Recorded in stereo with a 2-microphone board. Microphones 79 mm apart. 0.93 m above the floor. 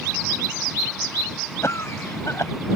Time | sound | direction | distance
1.6 | a cough | 35° left (ahead or behind) | ?